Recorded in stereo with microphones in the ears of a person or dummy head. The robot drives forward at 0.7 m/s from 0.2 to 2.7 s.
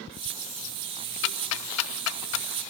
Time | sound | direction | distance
1.2 | ticking | 60° left (ahead or behind) | 0.9 m